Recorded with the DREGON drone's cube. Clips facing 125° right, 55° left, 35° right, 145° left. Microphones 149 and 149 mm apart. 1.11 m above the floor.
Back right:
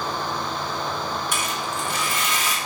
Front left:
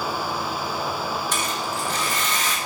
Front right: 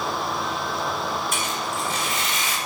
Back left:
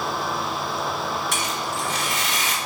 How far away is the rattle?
About 2.5 m.